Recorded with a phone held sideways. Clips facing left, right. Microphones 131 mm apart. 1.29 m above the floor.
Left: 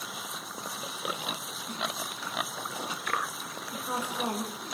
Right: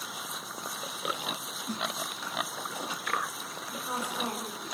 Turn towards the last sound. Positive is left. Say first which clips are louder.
# left 1 dB
turn(degrees=15)  # may be behind; listen again after turning